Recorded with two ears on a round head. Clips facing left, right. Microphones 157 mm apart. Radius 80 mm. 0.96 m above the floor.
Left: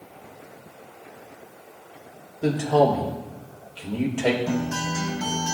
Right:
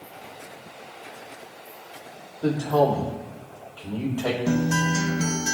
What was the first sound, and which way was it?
A man speaking, 25° left (ahead or behind).